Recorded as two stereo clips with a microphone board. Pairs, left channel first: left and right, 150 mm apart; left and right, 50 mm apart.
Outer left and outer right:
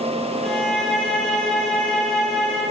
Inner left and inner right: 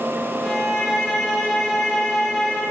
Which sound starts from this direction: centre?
A violin, at 0.4 s.